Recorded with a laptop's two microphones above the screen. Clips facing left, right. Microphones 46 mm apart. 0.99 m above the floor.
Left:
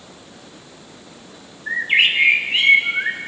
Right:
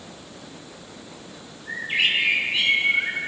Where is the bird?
50° left (ahead or behind), 1.8 m.